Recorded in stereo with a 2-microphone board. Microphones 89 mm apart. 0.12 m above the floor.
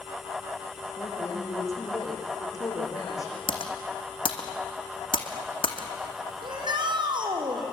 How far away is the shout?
About 5 m.